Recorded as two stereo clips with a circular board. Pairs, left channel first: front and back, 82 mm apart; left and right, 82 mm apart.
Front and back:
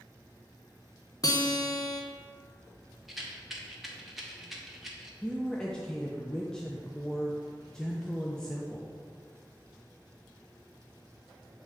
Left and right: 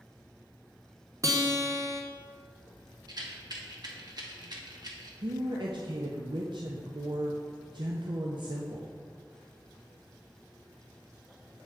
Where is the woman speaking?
80° right, 0.6 m.